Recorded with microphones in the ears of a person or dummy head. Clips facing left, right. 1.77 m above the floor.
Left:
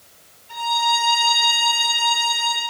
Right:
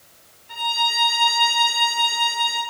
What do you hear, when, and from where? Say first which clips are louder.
0.5 s a violin: left 5 dB; 20° right (ahead or behind), 1.4 m